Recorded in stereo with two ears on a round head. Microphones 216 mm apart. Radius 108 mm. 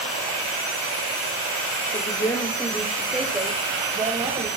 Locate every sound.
1.9 s a woman speaking: 25° left (ahead or behind), 1.6 m; by 4.5 s 20° right (ahead or behind), 3.5 m